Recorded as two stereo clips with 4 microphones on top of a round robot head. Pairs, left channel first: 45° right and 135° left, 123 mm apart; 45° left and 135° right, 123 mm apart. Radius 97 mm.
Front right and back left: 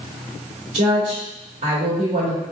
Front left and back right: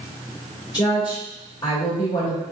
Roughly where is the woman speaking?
Left.